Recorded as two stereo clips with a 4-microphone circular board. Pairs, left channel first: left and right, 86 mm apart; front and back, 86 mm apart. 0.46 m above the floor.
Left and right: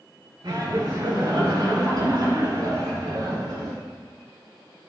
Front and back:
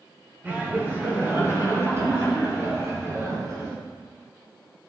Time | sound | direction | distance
0.4 | laughter | 110° right | 1.8 m